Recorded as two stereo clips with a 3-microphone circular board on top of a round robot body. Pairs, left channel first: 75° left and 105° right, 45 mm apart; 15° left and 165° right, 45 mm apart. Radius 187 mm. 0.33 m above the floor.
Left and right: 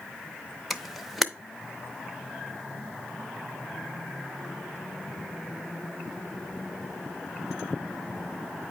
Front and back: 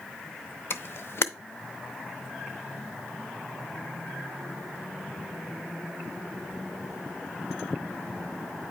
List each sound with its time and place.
0.7 s a camera shutter: 15° right, 0.7 m